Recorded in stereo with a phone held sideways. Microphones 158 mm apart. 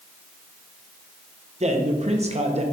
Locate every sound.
1.6 s a man speaking: 45° right (ahead or behind), 1.2 m